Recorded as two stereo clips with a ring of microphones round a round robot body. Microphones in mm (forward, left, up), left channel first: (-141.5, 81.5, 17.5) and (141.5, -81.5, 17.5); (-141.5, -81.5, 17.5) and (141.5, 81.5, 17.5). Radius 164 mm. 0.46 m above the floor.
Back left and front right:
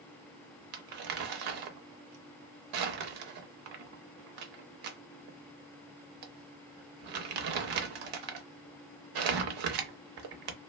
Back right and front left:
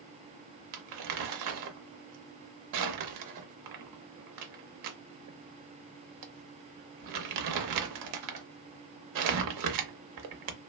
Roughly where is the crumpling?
Ahead.